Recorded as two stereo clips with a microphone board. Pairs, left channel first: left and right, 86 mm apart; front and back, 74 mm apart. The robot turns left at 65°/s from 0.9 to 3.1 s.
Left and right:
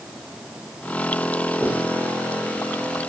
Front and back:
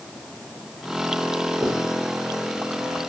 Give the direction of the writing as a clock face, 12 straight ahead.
5 o'clock.